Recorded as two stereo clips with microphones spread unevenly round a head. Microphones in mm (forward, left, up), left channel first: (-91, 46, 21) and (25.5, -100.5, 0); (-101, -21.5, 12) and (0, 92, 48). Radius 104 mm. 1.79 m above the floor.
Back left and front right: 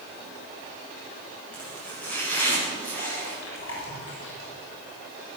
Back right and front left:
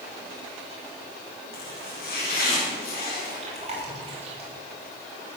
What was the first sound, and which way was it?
Chopping, 150° right.